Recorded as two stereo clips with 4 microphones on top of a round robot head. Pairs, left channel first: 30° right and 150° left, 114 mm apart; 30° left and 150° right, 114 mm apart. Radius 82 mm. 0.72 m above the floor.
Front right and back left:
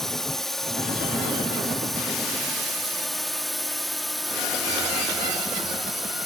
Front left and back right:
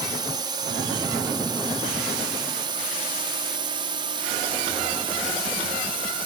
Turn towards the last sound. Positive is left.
turn(degrees=-125)